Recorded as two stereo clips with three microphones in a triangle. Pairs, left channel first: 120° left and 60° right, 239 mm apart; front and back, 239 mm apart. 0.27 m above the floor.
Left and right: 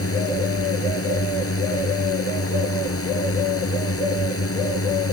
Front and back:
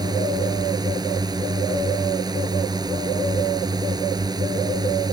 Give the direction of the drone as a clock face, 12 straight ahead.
8 o'clock.